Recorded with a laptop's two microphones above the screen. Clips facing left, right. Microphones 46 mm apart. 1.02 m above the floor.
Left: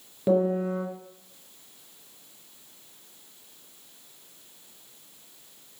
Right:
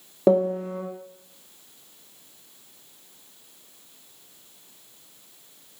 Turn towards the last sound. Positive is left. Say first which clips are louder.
# right 3 dB
turn(degrees=-70)  # may be behind; listen again after turning